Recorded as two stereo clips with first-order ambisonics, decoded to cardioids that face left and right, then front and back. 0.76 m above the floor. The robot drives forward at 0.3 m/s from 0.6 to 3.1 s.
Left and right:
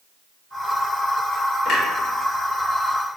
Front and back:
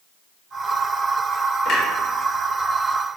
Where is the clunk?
45° left, 0.9 m.